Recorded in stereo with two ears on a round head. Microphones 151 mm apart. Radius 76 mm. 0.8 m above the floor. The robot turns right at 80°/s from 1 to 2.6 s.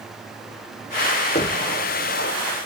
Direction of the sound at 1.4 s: 45° left (ahead or behind).